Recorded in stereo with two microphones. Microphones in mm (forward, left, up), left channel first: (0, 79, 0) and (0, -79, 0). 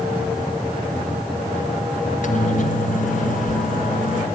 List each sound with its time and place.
2.0 s a microwave: 55° left (ahead or behind), 1.7 m